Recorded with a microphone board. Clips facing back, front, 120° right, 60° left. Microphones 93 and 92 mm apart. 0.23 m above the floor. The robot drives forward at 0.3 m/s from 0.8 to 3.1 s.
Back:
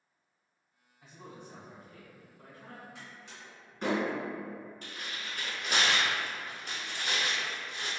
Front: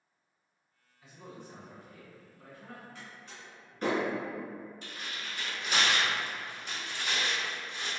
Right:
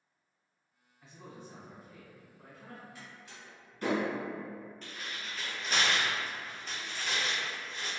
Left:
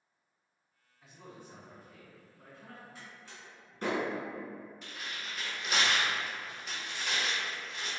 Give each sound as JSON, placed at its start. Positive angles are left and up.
{"t": 1.0, "sound": "a man speaking", "azimuth_deg": 145, "distance_m": 1.4}
{"t": 3.0, "sound": "a door slam", "azimuth_deg": 110, "distance_m": 1.7}
{"t": 4.8, "sound": "tearing paper", "azimuth_deg": 140, "distance_m": 1.2}